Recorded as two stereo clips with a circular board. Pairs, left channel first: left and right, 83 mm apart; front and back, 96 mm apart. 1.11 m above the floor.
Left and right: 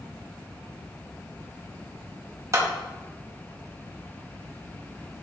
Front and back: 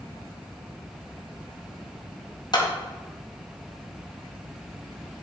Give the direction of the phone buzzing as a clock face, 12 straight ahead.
No phone buzzing in this recording.